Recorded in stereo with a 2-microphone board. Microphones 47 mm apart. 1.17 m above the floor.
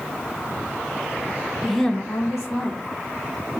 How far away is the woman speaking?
About 0.8 m.